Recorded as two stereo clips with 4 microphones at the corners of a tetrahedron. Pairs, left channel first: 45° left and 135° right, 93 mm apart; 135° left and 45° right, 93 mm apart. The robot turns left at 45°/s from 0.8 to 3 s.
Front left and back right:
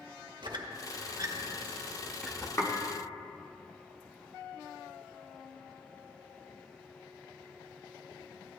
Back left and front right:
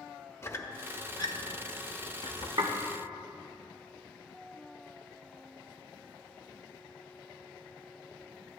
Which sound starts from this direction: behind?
A squeak, at 0.4 s.